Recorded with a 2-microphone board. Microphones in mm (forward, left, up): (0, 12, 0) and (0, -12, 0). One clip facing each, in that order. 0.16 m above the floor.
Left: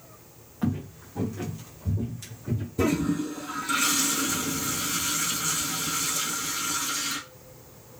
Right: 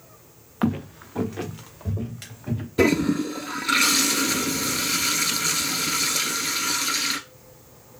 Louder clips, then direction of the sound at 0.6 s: Right 5 dB; 65° right (ahead or behind).